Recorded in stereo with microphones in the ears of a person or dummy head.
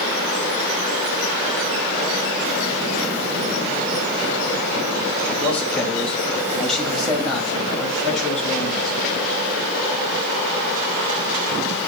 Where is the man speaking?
10° left (ahead or behind), 5 m; by 9.0 s 5° left (ahead or behind), 7.5 m.